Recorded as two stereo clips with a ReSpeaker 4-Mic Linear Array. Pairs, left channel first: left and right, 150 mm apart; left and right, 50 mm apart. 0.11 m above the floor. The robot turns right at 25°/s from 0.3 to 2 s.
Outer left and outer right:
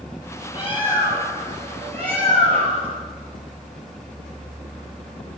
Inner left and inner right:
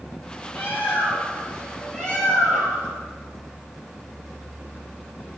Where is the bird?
130° left, 3 m; by 3.0 s 165° left, 3 m.